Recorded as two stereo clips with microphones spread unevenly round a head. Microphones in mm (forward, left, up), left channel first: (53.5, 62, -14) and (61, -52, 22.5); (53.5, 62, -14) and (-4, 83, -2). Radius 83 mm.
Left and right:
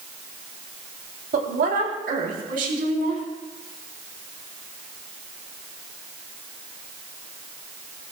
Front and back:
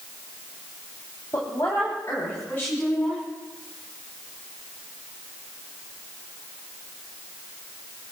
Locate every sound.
1.3 s a woman speaking: 85° right, 3.5 m; by 3.2 s 95° right, 5.5 m